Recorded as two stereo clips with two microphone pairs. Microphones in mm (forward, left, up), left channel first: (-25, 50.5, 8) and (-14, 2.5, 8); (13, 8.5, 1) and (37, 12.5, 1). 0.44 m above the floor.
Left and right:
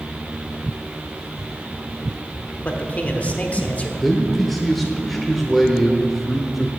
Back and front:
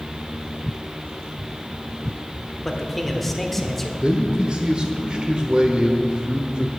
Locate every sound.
2.6 s a man speaking: 115° left, 1.3 m
4.0 s a man speaking: 20° left, 1.1 m